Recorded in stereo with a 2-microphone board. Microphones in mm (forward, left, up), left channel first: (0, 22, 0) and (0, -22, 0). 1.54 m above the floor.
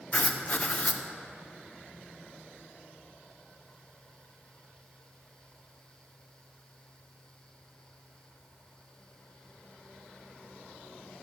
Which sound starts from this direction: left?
Writing, at 0.1 s.